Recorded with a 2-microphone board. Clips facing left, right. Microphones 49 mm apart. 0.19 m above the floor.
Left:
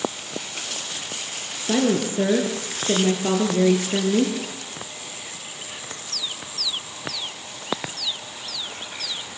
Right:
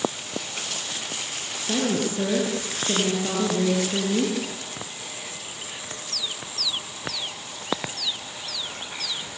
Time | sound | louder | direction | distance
1.6 | a woman speaking | left 4 dB | 25° left (ahead or behind) | 4.5 m